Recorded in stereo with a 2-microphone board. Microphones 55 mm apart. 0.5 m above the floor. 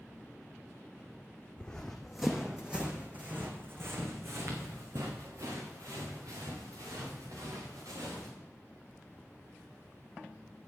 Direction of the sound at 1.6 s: 15° left (ahead or behind).